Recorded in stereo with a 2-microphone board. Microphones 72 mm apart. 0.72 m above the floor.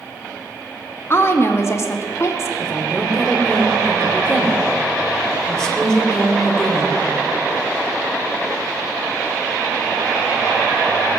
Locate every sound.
1.1 s a woman speaking: 35° left (ahead or behind), 1.1 m; by 2.5 s 45° left (ahead or behind), 1.7 m
2.6 s a woman speaking: 5° left (ahead or behind), 3 m